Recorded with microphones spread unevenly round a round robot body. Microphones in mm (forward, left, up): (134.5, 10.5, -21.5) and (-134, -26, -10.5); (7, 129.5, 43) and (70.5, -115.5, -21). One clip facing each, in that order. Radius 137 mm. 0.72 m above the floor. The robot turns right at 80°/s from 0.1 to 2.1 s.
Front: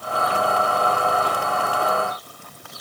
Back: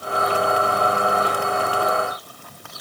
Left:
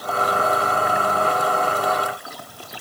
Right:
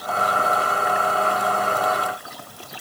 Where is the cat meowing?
No cat meowing in this recording.